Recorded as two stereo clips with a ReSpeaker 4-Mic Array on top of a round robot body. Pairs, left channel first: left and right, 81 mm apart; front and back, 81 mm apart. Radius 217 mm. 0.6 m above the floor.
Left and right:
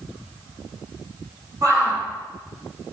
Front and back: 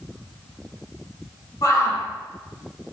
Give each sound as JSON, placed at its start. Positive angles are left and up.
{"t": 1.6, "sound": "a shout", "azimuth_deg": -40, "distance_m": 9.0}